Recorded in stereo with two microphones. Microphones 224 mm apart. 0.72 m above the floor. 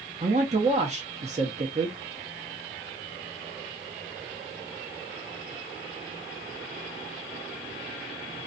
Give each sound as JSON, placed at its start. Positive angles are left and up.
{"t": 0.2, "sound": "a man speaking", "side_deg": -30, "distance_m": 0.7}